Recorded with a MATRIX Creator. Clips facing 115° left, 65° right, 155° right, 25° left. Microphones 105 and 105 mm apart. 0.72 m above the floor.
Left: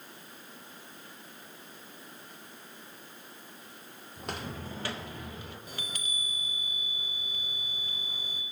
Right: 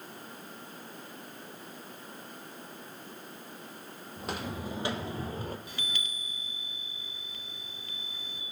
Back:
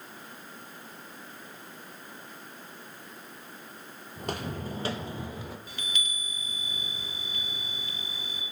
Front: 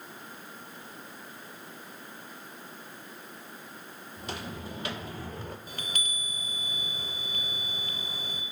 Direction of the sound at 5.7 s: 65° left.